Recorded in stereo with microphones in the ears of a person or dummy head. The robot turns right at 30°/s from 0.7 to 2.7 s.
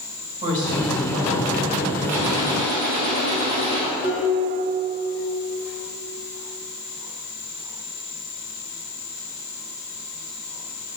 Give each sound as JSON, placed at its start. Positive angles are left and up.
{"t": 0.4, "sound": "a woman speaking", "azimuth_deg": -140, "distance_m": 2.5}
{"t": 2.1, "sound": "a gunshot", "side_deg": -5, "distance_m": 1.6}
{"t": 4.0, "sound": "dishes clattering", "side_deg": 35, "distance_m": 1.5}